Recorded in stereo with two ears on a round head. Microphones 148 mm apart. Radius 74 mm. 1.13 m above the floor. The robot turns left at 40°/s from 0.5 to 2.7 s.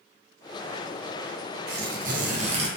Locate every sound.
1.7 s tearing paper: 105° right, 0.5 m; by 2.7 s 145° right, 0.5 m